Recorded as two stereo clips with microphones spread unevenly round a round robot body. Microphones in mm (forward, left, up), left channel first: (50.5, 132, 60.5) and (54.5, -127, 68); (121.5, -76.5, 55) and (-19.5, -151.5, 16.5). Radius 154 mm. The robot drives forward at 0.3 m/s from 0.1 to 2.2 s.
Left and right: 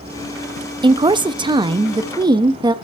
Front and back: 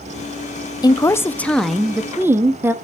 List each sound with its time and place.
0.8 s a woman speaking: 40° right, 0.6 m; by 2.7 s 145° right, 0.6 m